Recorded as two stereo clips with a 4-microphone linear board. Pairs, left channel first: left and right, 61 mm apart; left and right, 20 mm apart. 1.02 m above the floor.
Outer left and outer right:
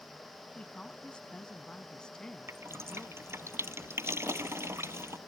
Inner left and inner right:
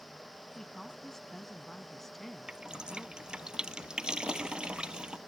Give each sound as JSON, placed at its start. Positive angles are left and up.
{"t": 0.6, "sound": "a woman speaking", "side_deg": 20}
{"t": 2.5, "sound": "dripping", "side_deg": -45}